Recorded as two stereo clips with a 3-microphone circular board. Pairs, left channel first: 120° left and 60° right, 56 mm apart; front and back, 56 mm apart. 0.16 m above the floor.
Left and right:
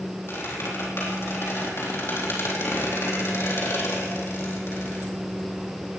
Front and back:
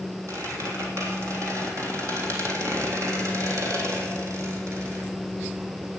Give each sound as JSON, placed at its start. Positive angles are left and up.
{"t": 0.3, "sound": "a squeak", "azimuth_deg": 160, "distance_m": 4.0}